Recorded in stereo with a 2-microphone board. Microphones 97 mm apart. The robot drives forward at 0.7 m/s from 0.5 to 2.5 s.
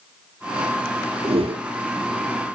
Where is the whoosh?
85° right, 0.6 m; by 1.7 s 60° right (ahead or behind), 0.7 m.